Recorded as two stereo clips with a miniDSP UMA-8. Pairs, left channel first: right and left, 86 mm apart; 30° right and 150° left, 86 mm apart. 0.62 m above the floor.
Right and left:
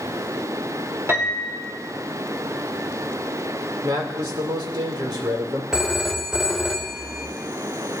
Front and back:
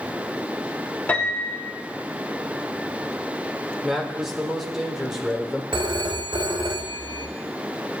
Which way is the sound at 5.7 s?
175° left.